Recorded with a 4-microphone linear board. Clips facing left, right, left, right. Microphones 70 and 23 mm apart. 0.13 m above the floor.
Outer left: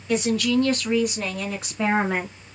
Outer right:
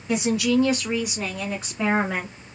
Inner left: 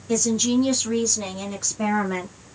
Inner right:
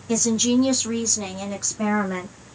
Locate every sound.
0.1 s a woman speaking: 15° right (ahead or behind), 1.4 m; by 2.3 s 5° left (ahead or behind), 1.6 m